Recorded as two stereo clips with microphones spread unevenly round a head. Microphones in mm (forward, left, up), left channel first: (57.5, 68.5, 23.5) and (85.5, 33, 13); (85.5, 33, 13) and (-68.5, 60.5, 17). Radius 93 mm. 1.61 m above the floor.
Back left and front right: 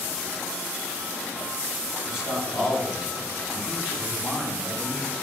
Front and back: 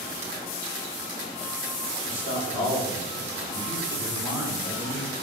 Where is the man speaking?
30° left, 7 m; by 5.1 s 20° left, 9 m.